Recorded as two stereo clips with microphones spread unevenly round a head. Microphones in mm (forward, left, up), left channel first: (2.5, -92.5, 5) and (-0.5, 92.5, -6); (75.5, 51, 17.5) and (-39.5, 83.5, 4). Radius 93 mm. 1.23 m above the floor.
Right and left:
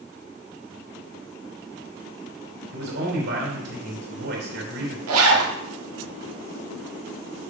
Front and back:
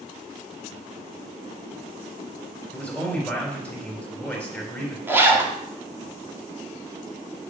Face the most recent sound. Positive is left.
turn(degrees=90)